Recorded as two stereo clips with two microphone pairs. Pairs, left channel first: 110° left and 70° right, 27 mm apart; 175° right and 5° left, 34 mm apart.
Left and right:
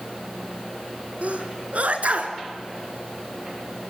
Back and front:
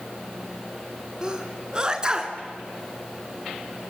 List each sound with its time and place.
1.2 s a sneeze: 55° right, 3 m